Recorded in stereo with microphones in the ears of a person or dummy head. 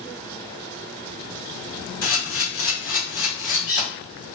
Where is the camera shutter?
70° left (ahead or behind), 1.2 m.